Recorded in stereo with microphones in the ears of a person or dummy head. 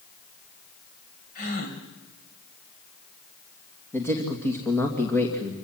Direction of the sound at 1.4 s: 50° left (ahead or behind).